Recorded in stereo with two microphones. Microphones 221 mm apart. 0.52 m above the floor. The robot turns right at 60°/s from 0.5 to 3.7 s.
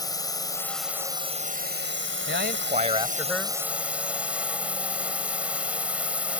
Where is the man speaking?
70° right; by 3.6 s 10° left.